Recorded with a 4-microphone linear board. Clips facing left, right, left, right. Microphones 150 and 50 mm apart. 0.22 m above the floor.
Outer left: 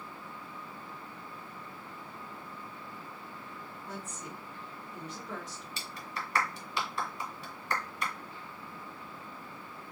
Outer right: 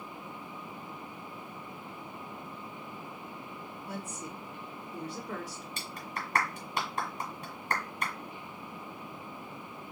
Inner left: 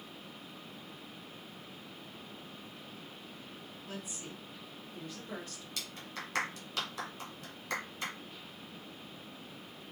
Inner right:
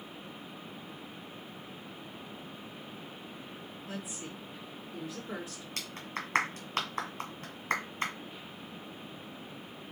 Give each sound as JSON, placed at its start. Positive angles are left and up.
{"t": 3.9, "sound": "a woman speaking", "side_deg": -10, "distance_m": 2.5}
{"t": 5.8, "sound": "a clap", "side_deg": -45, "distance_m": 1.6}